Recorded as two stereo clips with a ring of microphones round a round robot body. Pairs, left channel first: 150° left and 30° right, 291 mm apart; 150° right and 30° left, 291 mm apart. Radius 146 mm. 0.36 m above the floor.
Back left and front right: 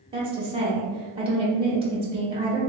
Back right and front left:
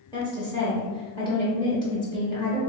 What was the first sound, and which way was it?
A woman speaking, 85° right.